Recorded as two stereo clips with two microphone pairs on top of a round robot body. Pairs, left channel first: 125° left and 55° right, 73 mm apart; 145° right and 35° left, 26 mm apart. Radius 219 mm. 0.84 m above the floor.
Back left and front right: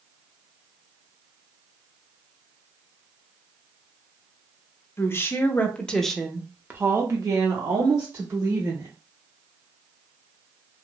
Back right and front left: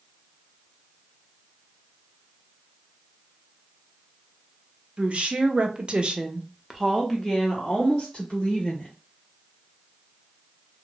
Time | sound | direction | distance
5.0 | a woman speaking | 75° left | 1.4 m